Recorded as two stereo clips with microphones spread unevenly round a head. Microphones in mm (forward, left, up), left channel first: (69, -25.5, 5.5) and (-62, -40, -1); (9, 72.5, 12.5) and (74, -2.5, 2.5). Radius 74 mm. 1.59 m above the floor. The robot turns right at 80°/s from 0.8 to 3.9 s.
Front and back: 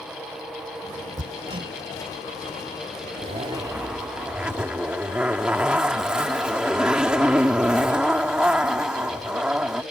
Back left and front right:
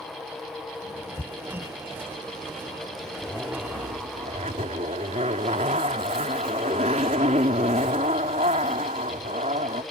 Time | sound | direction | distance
1.2 | hammering | 160° right | ?
3.2 | a zipper | 150° right | ?